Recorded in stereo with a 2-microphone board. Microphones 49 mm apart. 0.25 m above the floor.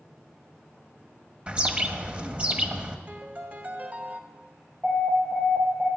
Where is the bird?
25° right (ahead or behind), 1.2 m.